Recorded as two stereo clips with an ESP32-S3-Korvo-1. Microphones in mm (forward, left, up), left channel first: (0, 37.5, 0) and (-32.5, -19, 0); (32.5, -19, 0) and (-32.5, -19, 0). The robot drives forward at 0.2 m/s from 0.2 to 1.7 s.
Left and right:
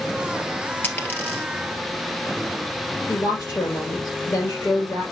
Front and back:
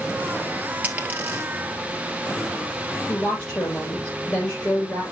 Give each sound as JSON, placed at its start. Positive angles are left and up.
{"t": 0.8, "sound": "a dropped coin", "azimuth_deg": 115, "distance_m": 1.5}
{"t": 3.1, "sound": "a woman speaking", "azimuth_deg": 75, "distance_m": 4.0}